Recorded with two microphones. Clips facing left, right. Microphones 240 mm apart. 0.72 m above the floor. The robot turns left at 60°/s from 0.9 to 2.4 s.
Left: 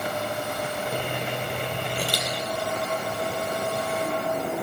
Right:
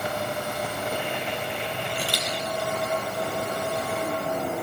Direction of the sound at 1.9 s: 40° left (ahead or behind).